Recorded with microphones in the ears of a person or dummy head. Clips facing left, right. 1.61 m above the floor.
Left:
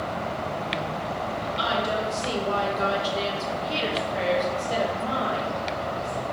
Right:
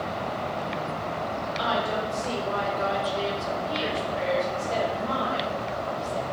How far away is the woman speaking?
About 2.5 m.